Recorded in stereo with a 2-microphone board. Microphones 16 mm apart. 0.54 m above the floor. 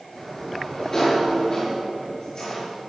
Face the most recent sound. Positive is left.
turn(degrees=20)  # may be behind; listen again after turning